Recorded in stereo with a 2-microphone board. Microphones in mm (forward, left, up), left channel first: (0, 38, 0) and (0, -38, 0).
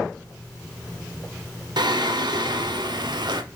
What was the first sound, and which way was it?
Singing, 75° right (ahead or behind).